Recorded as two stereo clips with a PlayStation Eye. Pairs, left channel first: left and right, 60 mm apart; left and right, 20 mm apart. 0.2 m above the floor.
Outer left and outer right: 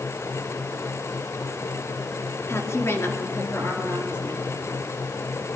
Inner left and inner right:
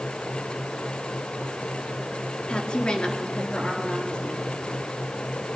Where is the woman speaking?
50° left (ahead or behind), 2.5 m.